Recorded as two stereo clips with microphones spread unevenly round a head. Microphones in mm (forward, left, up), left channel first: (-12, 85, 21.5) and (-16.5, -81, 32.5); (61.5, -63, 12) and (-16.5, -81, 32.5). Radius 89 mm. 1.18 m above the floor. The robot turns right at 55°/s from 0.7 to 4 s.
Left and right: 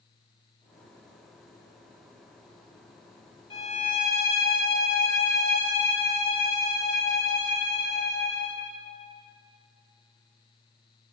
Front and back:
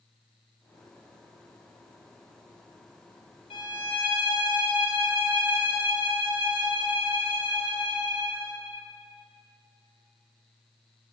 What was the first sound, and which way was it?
A violin, 20° left.